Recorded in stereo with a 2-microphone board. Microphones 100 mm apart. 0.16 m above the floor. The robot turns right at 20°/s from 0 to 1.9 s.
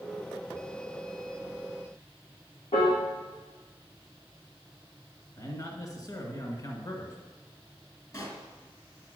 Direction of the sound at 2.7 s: 70° left (ahead or behind).